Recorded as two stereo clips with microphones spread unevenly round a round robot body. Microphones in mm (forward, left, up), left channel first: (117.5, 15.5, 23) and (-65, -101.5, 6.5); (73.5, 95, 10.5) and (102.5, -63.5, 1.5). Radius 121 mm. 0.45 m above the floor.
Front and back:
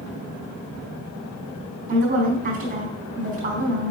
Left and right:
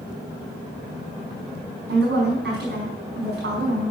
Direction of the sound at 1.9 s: 100° right.